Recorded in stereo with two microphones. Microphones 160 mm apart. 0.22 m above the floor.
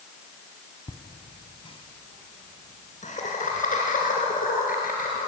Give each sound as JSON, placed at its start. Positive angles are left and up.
{"t": 0.9, "sound": "laughter", "side_deg": 25, "distance_m": 1.5}